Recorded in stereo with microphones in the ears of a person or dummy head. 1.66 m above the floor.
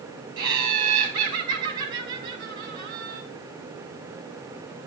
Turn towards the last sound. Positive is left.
turn(degrees=-30)  # may be behind; listen again after turning